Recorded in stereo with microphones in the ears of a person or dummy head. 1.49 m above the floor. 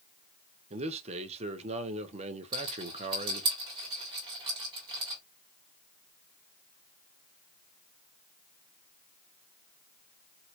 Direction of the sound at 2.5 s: 20° right (ahead or behind).